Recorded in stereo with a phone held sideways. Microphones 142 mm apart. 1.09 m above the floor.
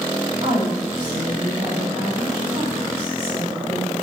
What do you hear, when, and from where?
0.4 s a woman speaking: 45° right (ahead or behind), 3.5 m